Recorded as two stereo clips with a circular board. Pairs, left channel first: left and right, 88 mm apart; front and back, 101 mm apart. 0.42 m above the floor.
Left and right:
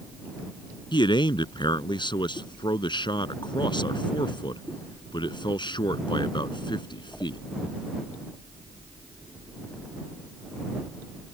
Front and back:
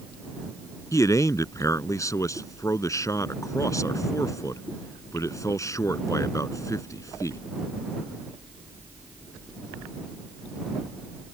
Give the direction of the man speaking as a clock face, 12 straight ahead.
10 o'clock.